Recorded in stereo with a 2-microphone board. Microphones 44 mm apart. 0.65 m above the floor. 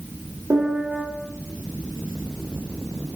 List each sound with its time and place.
0.5 s a piano: 75° right (ahead or behind), 0.9 m